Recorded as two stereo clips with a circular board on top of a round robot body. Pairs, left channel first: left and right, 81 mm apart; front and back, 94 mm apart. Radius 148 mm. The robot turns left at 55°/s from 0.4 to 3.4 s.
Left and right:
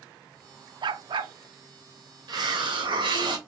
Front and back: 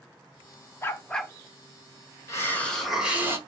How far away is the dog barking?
About 0.5 m.